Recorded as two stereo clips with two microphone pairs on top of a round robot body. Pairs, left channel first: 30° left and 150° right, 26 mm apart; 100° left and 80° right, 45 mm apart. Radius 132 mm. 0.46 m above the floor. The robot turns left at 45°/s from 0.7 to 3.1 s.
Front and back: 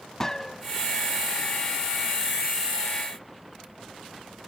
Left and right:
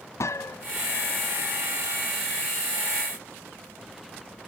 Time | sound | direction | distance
0.2 | a gunshot | 100° left | ?